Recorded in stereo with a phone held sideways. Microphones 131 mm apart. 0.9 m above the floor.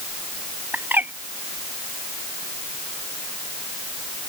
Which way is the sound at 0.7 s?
15° right (ahead or behind).